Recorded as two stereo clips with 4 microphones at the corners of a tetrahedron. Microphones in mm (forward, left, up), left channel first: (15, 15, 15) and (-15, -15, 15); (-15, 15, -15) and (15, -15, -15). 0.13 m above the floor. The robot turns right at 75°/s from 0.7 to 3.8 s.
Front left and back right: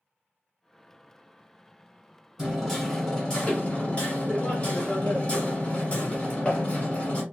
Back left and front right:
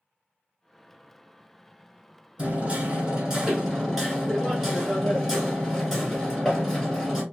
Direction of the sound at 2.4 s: 75° right.